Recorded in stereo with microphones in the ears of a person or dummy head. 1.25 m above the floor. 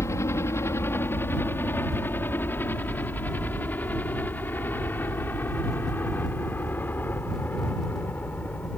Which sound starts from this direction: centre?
A helicopter, at 0.0 s.